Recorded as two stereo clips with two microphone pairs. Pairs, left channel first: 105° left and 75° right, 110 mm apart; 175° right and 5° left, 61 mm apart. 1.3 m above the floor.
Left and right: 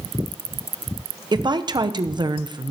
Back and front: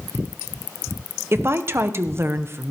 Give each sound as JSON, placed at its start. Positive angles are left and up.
{"t": 1.3, "sound": "a woman speaking", "azimuth_deg": -35, "distance_m": 0.7}